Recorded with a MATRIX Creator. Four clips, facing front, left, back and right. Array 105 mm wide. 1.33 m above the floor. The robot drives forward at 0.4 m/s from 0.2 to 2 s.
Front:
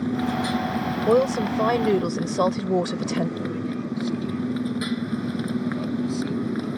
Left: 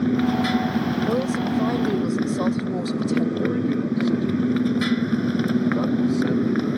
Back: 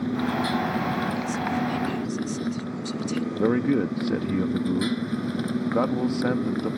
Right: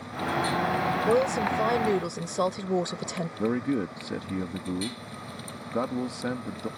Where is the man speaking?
170° right.